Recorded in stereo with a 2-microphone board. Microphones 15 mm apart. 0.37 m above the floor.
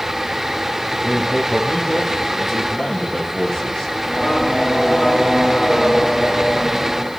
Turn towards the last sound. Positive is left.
turn(degrees=50)  # may be behind; listen again after turning